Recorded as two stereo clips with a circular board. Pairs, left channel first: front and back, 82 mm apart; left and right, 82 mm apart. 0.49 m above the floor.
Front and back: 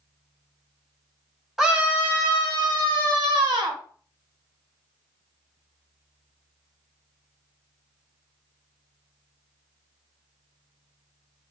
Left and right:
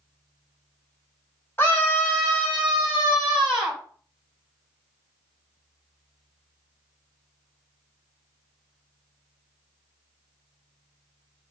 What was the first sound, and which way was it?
A scream, 95° left.